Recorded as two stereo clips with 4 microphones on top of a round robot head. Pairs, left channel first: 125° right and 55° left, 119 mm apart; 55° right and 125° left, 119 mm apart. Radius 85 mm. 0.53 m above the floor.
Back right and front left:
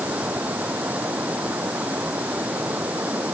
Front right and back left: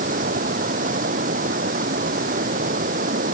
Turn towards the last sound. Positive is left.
turn(degrees=130)